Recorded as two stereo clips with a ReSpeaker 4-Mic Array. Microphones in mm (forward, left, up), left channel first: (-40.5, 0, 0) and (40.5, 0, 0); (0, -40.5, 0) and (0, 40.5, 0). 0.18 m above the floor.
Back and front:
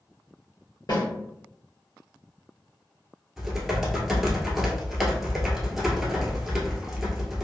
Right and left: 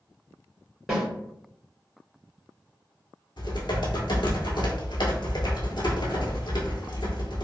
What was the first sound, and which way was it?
A snare drum, straight behind.